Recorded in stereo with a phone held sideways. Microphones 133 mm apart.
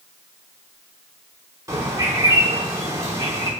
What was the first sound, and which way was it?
A bird, 25° right (ahead or behind).